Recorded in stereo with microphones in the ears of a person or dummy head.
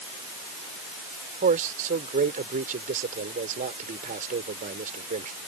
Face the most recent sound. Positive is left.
turn(degrees=-40)  # may be behind; listen again after turning